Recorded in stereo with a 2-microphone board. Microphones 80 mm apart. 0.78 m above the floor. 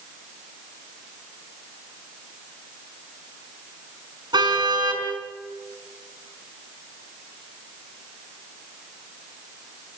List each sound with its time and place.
4.3 s a car horn: 65° right (ahead or behind), 5 m